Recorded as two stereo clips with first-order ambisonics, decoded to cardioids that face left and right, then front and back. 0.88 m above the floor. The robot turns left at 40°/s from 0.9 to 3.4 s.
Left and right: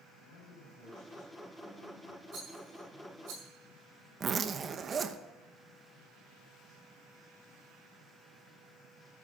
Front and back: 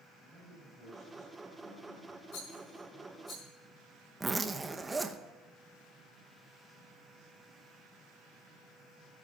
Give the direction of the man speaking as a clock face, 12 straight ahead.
9 o'clock.